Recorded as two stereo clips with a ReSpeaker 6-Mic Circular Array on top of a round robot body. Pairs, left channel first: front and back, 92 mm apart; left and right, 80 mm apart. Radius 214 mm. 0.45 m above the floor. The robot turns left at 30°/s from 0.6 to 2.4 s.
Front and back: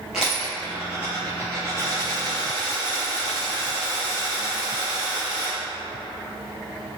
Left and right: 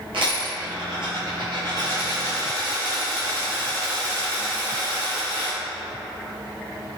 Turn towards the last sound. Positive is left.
turn(degrees=-150)